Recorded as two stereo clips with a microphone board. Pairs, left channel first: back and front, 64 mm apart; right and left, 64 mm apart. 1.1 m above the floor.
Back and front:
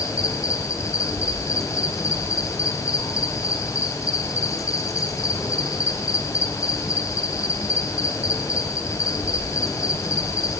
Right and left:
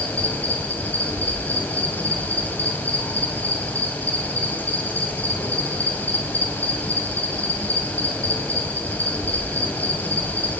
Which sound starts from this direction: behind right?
An insect, at 0.0 s.